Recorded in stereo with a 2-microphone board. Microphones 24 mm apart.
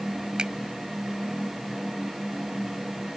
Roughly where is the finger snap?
Right.